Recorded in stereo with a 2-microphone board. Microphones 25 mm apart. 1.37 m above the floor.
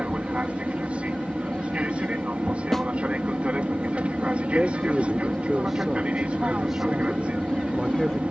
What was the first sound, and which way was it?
An aircraft, 60° right (ahead or behind).